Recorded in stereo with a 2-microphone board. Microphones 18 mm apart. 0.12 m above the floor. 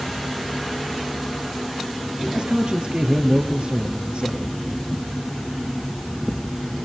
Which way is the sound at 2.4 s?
65° right (ahead or behind).